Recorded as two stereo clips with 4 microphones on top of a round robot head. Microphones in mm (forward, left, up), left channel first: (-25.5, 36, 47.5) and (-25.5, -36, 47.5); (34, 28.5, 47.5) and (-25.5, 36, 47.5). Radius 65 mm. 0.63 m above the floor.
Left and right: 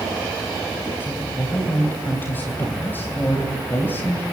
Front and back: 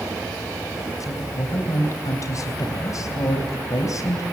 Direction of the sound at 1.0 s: 20° left.